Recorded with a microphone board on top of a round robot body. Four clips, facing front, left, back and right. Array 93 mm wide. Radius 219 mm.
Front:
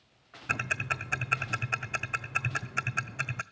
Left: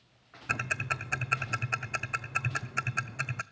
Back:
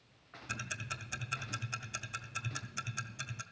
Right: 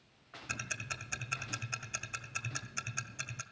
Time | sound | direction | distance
0.5 | ticking | 40° left | 0.7 m